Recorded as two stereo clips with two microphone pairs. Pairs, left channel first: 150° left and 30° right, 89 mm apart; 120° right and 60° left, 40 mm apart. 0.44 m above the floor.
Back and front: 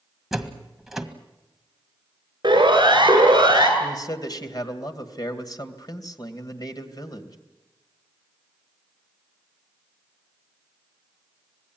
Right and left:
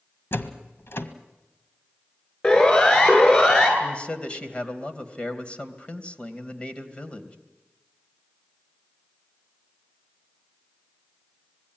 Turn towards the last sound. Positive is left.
turn(degrees=180)